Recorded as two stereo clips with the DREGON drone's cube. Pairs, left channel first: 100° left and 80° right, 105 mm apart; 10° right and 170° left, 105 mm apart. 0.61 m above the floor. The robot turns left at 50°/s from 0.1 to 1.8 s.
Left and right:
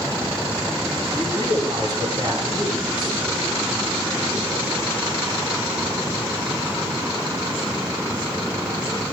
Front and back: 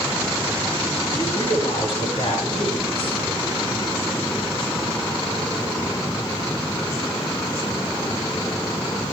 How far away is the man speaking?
About 7 m.